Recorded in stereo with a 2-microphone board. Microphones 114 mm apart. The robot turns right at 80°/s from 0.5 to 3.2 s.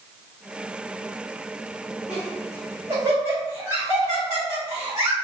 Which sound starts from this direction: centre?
Laughter, at 2.1 s.